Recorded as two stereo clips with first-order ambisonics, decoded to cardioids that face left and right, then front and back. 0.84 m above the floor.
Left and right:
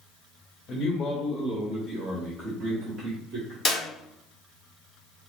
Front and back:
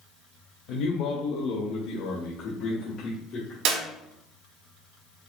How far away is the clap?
About 1.2 m.